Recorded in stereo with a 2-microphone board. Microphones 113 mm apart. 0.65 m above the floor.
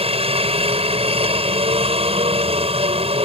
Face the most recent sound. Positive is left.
turn(degrees=-60)  # may be behind; listen again after turning